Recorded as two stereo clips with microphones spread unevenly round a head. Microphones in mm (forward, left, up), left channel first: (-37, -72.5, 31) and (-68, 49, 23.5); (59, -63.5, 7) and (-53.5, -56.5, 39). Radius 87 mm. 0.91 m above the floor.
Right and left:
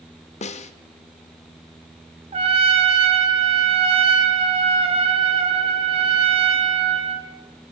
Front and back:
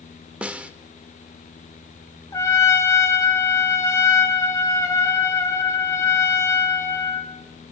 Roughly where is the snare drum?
Right.